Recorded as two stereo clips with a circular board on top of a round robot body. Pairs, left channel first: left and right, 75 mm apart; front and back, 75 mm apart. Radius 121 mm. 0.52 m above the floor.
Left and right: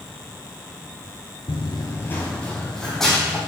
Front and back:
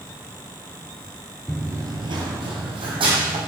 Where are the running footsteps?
85° left, 0.6 m; by 3.4 s 175° left, 2.5 m.